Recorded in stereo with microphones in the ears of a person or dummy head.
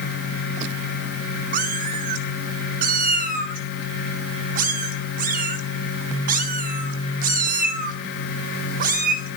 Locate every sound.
1.5 s a cat meowing: 55° right (ahead or behind), 2.0 m